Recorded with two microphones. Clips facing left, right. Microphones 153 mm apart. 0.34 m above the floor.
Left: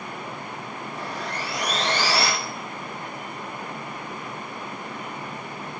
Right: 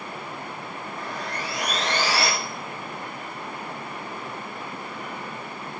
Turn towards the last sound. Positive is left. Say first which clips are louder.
# left 1 dB
turn(degrees=85)